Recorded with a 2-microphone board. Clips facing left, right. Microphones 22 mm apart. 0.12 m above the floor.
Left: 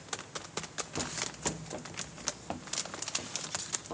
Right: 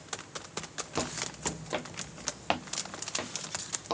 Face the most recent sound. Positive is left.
turn(degrees=-85)